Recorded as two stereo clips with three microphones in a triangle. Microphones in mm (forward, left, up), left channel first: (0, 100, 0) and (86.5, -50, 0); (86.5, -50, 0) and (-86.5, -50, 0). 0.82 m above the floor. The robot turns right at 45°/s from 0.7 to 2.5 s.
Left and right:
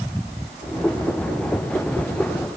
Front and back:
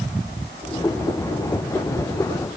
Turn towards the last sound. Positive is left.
No sound to turn to.